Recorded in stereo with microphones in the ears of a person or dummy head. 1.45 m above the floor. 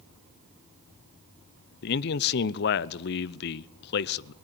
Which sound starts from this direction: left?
A man speaking, at 1.8 s.